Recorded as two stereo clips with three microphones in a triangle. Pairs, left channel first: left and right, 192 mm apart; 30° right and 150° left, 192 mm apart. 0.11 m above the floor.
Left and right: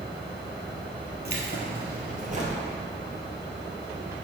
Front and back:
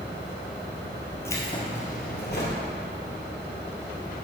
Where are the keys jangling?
105° right, 1.6 m; by 2.6 s 35° right, 1.7 m.